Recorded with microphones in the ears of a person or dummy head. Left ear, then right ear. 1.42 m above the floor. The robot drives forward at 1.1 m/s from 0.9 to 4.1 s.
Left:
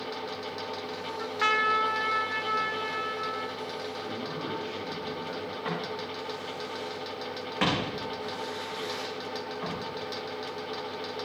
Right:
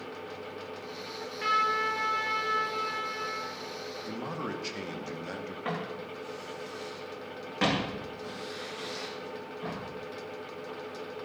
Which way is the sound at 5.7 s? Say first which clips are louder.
Left 1 dB; 10° left (ahead or behind).